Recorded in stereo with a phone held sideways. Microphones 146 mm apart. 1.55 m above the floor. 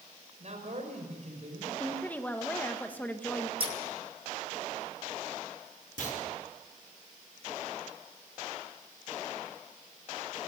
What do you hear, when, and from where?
0.4 s a man speaking: 55° right (ahead or behind), 5.5 m
1.8 s a woman speaking: 10° left (ahead or behind), 1.6 m
3.6 s scissors: 40° right (ahead or behind), 1.7 m
6.0 s a clunk: 65° left (ahead or behind), 4.5 m